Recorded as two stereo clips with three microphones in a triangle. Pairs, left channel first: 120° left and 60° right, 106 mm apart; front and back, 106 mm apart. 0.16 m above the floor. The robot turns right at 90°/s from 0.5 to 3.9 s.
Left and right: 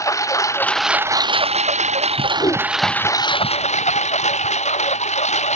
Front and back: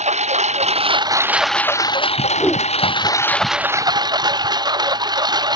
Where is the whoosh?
65° left; by 2.7 s 90° left.